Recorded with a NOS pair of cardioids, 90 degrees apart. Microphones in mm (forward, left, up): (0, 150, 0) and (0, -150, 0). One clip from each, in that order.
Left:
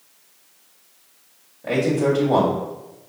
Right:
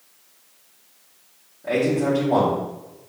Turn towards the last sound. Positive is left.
turn(degrees=30)